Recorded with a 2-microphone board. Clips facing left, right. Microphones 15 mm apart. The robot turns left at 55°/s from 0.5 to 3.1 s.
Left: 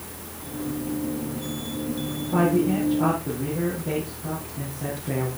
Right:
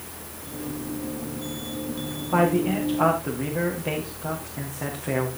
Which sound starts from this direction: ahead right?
A man speaking, at 2.3 s.